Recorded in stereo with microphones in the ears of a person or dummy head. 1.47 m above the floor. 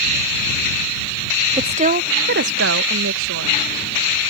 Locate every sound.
1.6 s a woman speaking: 25° right (ahead or behind); by 3.6 s 80° right